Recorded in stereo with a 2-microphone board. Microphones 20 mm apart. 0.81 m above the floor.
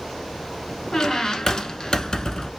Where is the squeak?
35° left (ahead or behind), 0.9 m.